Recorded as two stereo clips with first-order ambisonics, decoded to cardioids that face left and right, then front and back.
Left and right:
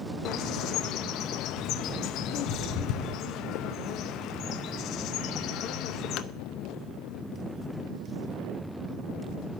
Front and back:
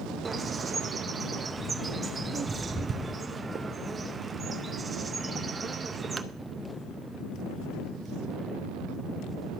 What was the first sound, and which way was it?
A bird, 105° left.